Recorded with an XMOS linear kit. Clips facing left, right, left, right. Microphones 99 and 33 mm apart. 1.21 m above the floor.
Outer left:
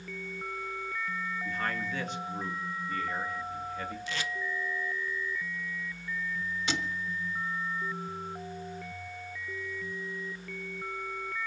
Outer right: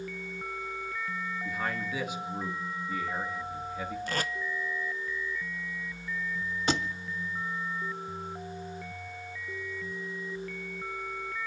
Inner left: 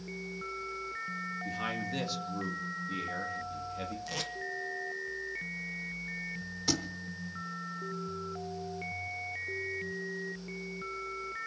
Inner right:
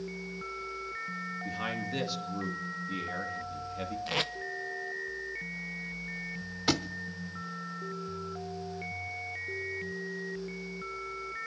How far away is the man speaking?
About 2 m.